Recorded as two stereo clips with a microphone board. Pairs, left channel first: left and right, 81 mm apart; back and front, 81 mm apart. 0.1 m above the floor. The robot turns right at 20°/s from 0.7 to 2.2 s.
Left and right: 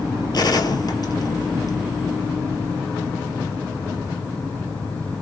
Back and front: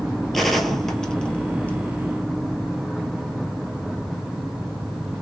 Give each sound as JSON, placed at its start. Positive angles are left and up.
{"t": 0.3, "sound": "a gunshot", "azimuth_deg": 95, "distance_m": 0.9}